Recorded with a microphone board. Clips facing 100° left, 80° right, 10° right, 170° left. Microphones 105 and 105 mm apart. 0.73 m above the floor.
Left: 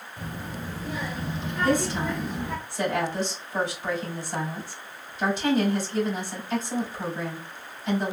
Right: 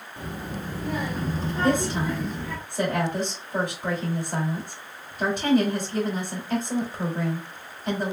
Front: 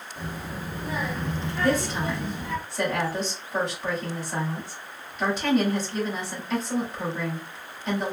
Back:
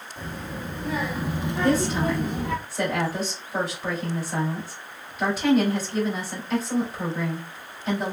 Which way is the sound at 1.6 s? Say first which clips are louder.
Even, back 2 dB; 105° right.